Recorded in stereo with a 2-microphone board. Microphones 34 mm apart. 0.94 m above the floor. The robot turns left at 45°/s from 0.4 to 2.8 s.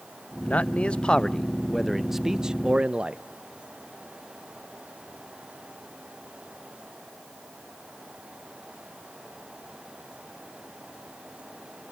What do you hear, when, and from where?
0.4 s a man speaking: 65° left, 0.6 m; by 3.2 s 40° right, 0.6 m